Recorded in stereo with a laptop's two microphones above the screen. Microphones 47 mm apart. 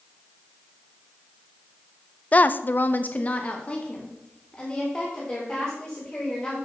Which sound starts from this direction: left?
A woman speaking, at 2.3 s.